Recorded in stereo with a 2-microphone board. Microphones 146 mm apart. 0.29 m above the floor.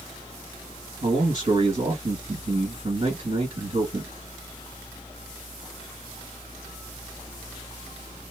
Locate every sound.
1.0 s a man speaking: 45° right (ahead or behind), 1.7 m